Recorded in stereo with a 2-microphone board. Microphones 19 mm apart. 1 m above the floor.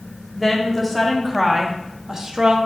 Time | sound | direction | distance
0.3 | a woman speaking | 10° left (ahead or behind) | 2.5 m